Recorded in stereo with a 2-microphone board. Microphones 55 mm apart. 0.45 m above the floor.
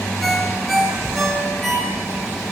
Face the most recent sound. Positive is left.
turn(degrees=0)  # may be behind; listen again after turning